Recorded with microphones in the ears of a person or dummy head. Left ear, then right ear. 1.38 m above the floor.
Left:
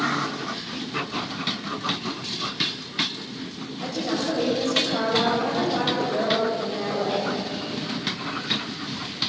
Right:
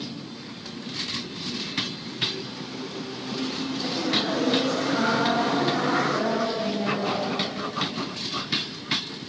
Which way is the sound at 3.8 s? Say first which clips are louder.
Right 1 dB; 85° left.